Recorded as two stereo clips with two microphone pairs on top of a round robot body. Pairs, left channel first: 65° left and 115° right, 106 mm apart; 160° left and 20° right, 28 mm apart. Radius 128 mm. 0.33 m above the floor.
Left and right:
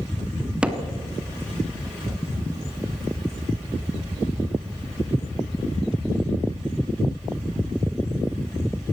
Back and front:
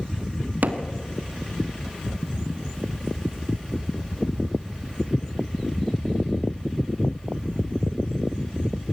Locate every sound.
0.6 s hammering: 35° right, 1.5 m